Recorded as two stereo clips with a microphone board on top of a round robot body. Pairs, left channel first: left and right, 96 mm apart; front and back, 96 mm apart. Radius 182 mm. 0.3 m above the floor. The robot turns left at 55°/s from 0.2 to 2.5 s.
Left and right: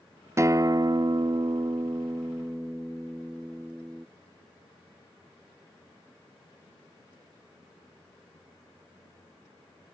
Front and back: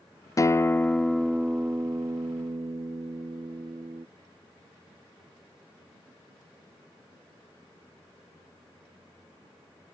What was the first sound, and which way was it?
A guitar, 40° right.